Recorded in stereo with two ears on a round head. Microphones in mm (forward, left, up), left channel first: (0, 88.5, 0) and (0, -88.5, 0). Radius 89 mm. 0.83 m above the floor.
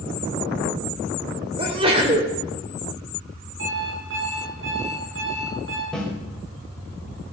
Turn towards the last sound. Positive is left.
turn(degrees=5)  # may be behind; listen again after turning